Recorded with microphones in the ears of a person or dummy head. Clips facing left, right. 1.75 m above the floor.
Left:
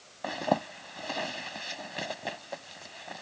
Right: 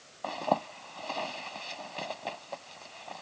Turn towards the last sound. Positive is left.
turn(degrees=15)  # may be behind; listen again after turning